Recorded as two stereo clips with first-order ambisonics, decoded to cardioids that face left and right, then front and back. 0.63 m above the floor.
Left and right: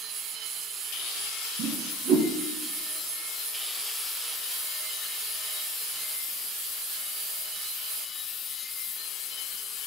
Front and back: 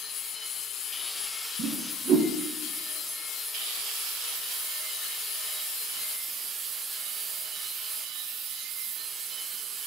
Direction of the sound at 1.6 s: 130° right.